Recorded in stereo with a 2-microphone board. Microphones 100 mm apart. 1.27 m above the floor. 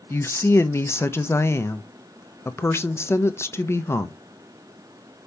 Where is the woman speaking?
25° left (ahead or behind), 0.6 m.